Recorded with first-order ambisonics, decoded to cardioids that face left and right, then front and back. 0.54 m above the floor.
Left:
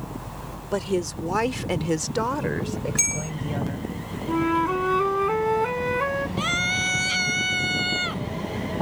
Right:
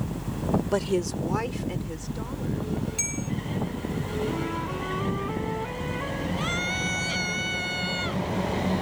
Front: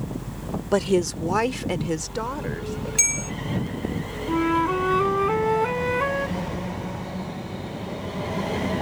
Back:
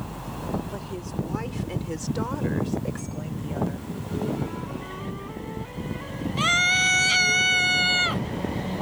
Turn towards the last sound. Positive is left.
turn(degrees=165)